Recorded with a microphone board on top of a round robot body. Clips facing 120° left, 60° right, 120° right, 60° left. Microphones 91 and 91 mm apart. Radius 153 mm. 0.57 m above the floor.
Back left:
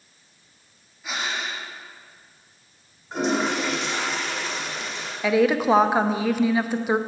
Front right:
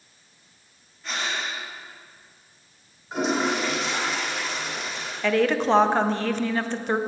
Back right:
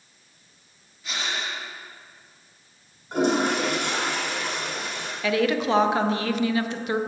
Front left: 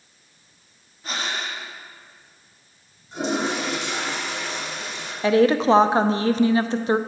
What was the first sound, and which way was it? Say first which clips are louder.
Breathing: even, front left 2 dB; 40° left.